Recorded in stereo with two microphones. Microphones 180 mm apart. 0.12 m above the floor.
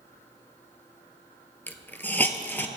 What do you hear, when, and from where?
1.7 s a hiss: 10° left (ahead or behind), 0.6 m